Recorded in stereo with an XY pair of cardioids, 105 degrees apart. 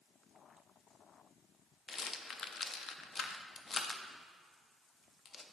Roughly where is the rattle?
Ahead left.